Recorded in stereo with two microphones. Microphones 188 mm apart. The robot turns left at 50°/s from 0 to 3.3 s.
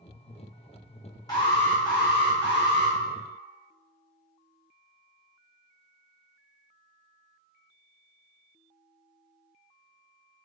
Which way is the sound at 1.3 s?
155° left.